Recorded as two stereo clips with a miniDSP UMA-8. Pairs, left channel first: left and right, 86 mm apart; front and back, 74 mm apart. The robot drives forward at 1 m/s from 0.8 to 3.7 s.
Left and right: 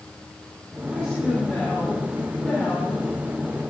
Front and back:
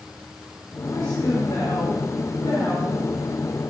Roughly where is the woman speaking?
Ahead.